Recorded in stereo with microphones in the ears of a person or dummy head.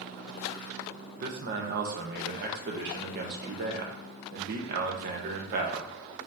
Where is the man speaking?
55° right (ahead or behind), 0.7 m.